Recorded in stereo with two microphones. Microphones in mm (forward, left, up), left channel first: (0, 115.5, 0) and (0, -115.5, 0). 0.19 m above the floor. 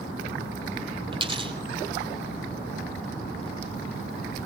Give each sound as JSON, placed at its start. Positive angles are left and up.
{"t": 1.1, "sound": "a dropped coin", "side_deg": -20, "distance_m": 2.0}